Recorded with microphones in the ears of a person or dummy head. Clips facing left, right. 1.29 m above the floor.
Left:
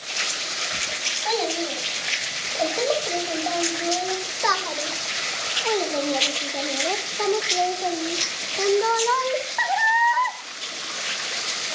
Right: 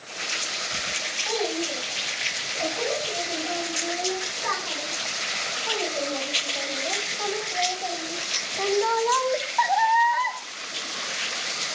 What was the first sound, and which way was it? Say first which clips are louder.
A child speaking: left 2 dB; 75° left (ahead or behind).